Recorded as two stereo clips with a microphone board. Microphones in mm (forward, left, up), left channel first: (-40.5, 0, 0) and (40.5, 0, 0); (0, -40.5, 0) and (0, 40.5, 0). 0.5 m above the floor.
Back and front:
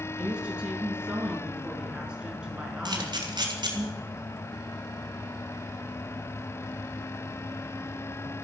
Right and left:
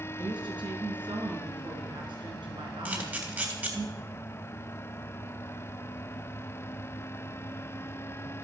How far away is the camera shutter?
About 3.5 m.